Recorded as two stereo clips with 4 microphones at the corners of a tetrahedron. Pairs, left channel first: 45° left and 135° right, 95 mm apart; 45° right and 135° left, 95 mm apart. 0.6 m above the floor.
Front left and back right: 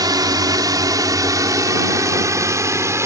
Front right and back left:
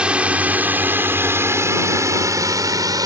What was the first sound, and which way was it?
A drone, 150° right.